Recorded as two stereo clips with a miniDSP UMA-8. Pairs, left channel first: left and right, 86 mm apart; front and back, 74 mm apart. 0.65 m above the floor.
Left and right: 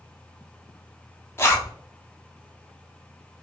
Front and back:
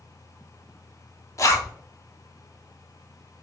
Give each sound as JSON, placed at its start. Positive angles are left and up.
{"t": 1.4, "sound": "a zipper", "azimuth_deg": 35, "distance_m": 0.6}